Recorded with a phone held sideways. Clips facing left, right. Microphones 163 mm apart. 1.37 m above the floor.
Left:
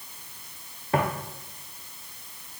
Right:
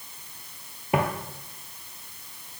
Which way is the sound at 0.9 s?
15° right (ahead or behind).